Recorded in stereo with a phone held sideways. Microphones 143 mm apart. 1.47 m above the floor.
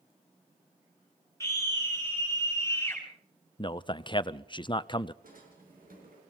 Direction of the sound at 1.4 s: 20° left (ahead or behind).